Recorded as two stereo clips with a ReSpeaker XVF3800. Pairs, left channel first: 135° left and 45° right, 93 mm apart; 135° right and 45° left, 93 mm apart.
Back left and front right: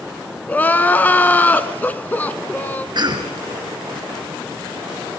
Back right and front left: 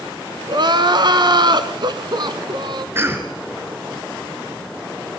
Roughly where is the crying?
Ahead left.